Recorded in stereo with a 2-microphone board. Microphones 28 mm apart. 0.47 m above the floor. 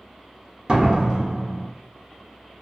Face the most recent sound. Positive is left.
turn(degrees=-30)  # may be behind; listen again after turning